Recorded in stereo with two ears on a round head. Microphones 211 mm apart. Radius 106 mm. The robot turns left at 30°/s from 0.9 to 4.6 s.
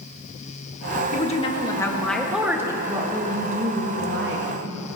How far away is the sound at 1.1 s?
About 1.2 m.